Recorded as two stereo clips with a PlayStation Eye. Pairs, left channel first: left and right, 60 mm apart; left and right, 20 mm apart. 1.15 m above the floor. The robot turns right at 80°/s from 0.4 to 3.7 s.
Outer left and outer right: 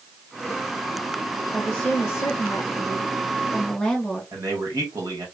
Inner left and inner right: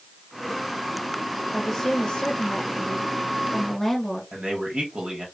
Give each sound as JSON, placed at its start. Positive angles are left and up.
{"t": 1.5, "sound": "a woman speaking", "azimuth_deg": -5, "distance_m": 0.7}
{"t": 4.3, "sound": "a man speaking", "side_deg": -70, "distance_m": 1.6}